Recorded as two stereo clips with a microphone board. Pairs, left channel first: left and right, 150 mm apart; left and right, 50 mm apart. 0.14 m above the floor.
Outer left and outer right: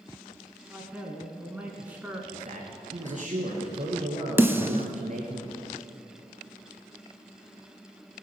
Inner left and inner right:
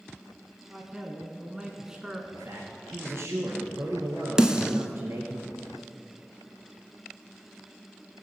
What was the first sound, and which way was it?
A man speaking, 10° right (ahead or behind).